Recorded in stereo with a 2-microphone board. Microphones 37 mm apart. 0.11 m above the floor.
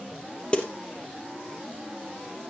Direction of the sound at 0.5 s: 30° left (ahead or behind).